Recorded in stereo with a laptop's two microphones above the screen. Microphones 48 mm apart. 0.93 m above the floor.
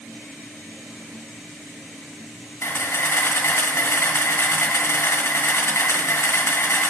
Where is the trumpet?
No trumpet in this recording.